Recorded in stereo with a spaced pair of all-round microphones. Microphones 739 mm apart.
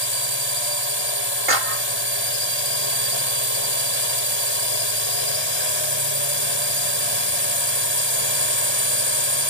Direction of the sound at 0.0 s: 35° left (ahead or behind).